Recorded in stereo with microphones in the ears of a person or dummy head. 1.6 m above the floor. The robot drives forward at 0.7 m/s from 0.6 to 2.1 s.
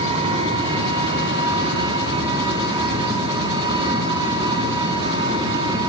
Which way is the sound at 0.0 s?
35° right (ahead or behind).